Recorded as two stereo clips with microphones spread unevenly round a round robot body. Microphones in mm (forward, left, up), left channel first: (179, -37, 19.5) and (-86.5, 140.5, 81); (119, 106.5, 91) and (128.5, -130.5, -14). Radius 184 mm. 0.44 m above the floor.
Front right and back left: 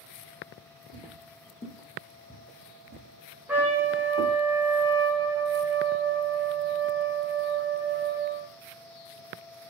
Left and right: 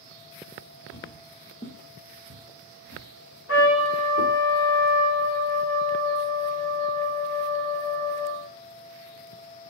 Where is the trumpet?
50° left, 1.1 m.